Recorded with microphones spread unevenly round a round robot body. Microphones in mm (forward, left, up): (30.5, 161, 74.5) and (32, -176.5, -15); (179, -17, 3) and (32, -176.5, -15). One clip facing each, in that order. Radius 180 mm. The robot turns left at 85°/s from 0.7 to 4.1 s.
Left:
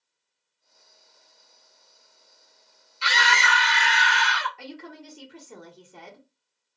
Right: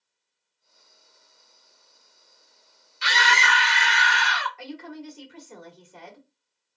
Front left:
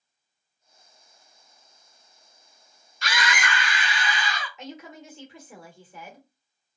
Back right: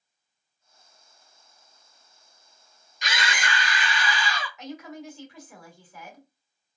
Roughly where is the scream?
Right.